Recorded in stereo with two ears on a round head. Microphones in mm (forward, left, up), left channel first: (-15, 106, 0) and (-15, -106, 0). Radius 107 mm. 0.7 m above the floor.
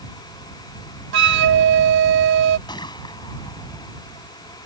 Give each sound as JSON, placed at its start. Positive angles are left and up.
{"t": 1.1, "sound": "a flute", "side_deg": -55}
{"t": 2.7, "sound": "a gunshot", "side_deg": 20}